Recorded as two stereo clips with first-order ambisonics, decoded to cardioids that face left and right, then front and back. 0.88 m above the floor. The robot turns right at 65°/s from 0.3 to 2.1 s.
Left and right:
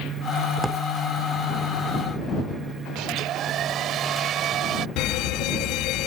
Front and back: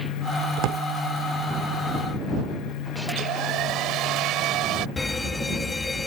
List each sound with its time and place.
0.6 s a drawer: 170° right; by 0.8 s 150° right
3.1 s a hair dryer: 140° right
5.0 s an alarm: 75° left